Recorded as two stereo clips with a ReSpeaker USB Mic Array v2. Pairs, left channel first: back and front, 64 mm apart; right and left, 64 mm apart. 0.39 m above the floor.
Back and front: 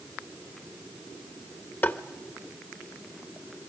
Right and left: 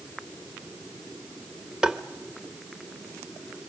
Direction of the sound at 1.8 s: 160° left.